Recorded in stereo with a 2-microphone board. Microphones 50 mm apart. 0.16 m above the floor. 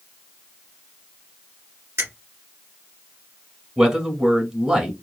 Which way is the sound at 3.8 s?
15° right (ahead or behind).